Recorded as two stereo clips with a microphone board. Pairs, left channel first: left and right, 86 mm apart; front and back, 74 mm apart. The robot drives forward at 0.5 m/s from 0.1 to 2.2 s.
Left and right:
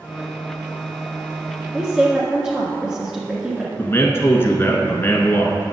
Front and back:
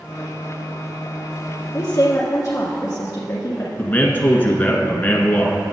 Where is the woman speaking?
15° right, 1.6 m; by 3.7 s 20° right, 1.4 m.